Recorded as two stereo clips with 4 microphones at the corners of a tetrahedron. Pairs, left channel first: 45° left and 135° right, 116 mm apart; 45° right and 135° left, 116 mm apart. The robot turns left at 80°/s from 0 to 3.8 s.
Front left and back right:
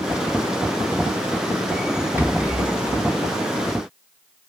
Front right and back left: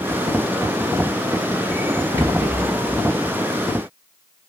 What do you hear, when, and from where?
2.2 s a rattle: 170° left, 1.1 m; by 3.0 s 100° left, 1.1 m